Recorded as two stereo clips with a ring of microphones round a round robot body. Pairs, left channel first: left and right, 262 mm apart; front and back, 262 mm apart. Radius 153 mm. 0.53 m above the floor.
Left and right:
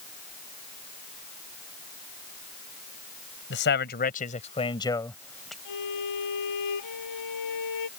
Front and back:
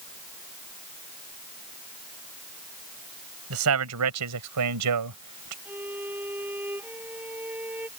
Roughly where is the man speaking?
Behind left.